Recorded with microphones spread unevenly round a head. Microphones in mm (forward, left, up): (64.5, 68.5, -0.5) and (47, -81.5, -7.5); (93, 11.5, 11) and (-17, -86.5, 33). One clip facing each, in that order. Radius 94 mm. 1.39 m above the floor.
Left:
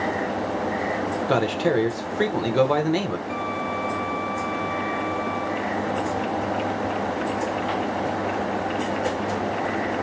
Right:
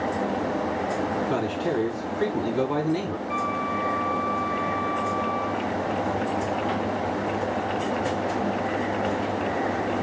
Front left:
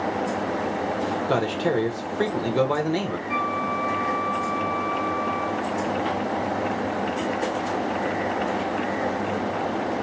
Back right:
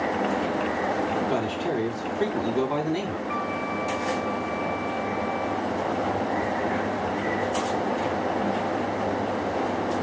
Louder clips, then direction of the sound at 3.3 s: Even, front left 2 dB; 95° left.